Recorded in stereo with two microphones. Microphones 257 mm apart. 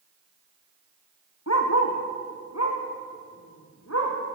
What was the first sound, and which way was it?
A dog barking, 85° left.